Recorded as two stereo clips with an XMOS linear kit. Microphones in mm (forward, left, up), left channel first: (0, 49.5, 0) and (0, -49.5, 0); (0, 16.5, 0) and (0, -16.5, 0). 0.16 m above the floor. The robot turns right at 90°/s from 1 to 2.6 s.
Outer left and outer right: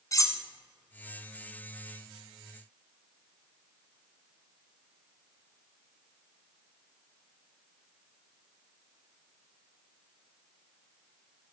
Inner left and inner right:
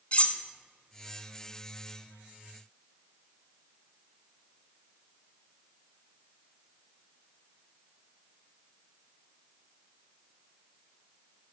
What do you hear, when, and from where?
0.1 s cutlery clinking: 35° left (ahead or behind), 0.9 m